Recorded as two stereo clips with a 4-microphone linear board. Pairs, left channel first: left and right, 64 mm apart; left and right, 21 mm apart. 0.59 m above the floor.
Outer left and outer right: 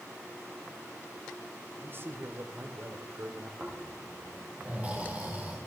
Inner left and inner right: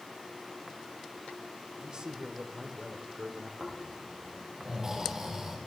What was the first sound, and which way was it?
A man speaking, 45° right (ahead or behind).